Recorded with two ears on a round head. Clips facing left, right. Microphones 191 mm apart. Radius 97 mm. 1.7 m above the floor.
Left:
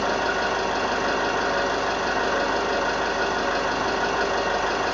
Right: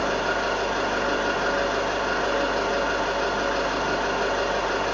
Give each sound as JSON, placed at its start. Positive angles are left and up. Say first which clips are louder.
{"t": 0.0, "sound": "an engine running", "louder": "even", "side_deg": 60, "distance_m": 1.1}